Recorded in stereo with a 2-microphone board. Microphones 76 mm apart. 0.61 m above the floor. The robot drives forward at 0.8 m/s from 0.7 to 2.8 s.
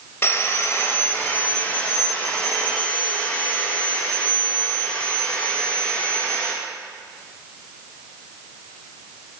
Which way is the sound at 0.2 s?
35° left (ahead or behind).